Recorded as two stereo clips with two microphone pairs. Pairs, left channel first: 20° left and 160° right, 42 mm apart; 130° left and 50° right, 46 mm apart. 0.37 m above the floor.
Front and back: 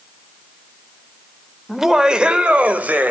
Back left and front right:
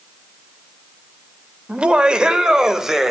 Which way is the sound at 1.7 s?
85° right.